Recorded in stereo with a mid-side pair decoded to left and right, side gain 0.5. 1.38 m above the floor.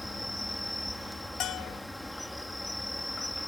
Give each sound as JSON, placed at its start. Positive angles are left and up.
{"t": 0.0, "sound": "an insect", "azimuth_deg": 10}
{"t": 1.4, "sound": "a bell", "azimuth_deg": 65}